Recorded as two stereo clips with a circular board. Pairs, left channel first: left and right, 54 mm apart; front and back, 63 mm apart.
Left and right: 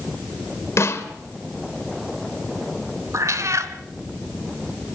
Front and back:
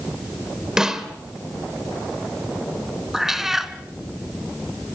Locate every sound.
0.8 s a snare drum: 100° left, 2 m
3.1 s a cat meowing: 95° right, 1.3 m